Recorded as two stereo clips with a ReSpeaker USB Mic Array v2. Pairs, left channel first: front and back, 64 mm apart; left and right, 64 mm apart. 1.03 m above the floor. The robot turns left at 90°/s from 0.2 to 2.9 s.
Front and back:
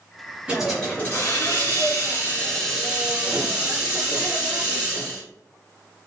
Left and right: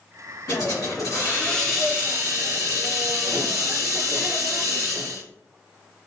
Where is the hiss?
110° left, 1.8 m; by 5.2 s 110° right, 1.8 m.